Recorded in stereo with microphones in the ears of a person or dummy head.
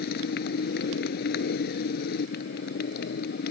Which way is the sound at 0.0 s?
65° left (ahead or behind).